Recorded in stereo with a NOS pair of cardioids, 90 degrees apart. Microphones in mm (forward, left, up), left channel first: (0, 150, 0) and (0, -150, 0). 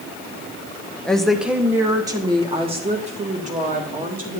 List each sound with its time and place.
1.1 s a woman speaking: 5° left, 1.3 m; by 4.4 s 30° right, 3 m